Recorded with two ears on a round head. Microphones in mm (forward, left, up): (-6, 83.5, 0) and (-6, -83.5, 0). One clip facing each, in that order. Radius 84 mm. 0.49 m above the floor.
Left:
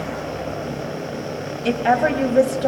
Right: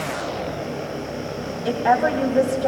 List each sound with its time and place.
1.6 s a woman speaking: 30° left (ahead or behind), 3.5 m; by 2.7 s 20° left (ahead or behind), 3.5 m